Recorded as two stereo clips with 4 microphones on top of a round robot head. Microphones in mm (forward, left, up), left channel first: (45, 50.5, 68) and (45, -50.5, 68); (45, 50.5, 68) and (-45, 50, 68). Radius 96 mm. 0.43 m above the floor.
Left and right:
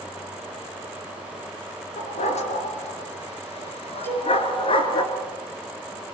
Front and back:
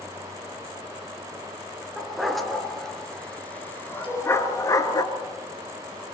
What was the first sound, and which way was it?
A dog barking, 95° left.